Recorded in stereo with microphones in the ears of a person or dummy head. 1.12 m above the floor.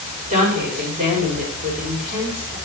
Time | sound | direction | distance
0.3 | a woman speaking | 40° right (ahead or behind) | 5 m